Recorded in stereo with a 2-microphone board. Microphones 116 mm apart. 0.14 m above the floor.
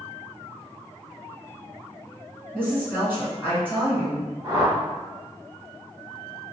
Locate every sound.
2.5 s a woman speaking: 15° right (ahead or behind), 1.7 m
4.4 s a whoosh: 35° right (ahead or behind), 1.3 m